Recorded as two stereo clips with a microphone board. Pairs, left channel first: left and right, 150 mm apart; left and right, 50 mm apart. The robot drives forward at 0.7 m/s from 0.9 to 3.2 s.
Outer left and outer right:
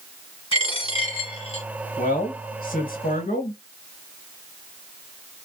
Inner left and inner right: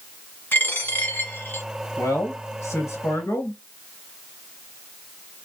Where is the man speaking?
55° left (ahead or behind), 1.6 m; by 3.6 s 60° left (ahead or behind), 1.5 m.